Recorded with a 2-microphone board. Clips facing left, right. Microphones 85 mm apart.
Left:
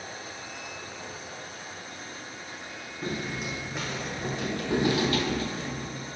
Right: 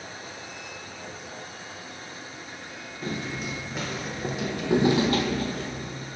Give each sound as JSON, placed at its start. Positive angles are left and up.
{"t": 3.0, "sound": "footsteps", "side_deg": 5, "distance_m": 1.8}